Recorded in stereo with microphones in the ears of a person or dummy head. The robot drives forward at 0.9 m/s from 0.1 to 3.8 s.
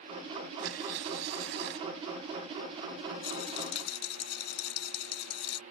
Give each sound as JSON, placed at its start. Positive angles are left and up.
{"t": 0.6, "sound": "tearing paper", "side_deg": -80}
{"t": 3.2, "sound": "a rattle", "side_deg": 80}